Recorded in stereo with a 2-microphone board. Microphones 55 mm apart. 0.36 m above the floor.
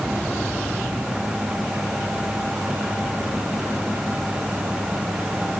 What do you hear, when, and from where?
Only background noise.